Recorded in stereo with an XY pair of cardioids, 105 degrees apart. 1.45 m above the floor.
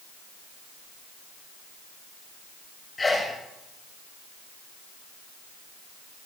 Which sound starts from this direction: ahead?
A sneeze, at 3.0 s.